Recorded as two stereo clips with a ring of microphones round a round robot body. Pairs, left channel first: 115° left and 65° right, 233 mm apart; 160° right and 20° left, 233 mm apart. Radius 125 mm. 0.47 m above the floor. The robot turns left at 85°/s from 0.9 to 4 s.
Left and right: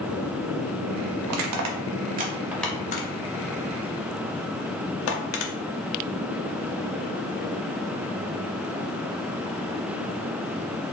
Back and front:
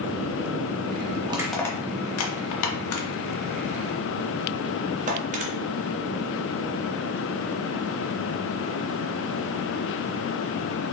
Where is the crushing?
45° right, 0.6 m; by 5.5 s 80° left, 0.6 m.